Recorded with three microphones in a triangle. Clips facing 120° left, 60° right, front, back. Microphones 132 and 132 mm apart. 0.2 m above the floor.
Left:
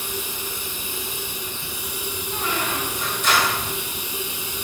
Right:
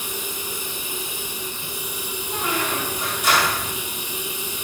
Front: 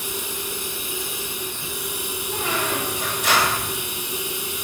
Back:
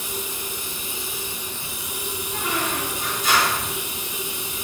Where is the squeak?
20° left, 1.5 m.